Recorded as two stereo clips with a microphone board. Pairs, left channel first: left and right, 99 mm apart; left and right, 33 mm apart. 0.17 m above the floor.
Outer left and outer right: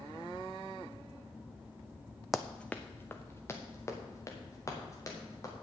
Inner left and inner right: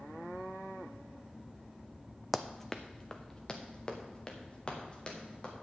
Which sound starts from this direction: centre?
Running footsteps, at 2.3 s.